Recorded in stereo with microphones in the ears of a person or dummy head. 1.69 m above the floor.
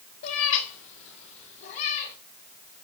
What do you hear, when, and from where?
0.2 s a cat meowing: 50° left (ahead or behind), 1.5 m; by 2.1 s 45° left (ahead or behind), 3 m